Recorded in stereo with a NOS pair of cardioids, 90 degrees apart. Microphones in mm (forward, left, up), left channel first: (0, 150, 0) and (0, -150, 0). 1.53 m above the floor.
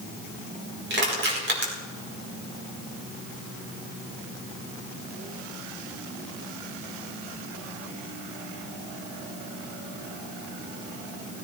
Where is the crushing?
40° right, 5 m.